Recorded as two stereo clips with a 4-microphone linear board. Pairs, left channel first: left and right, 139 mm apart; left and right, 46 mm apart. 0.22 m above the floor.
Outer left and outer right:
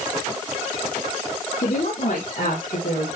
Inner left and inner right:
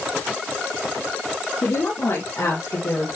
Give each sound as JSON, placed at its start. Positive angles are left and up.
{"t": 1.6, "sound": "a woman speaking", "side_deg": 80, "distance_m": 6.5}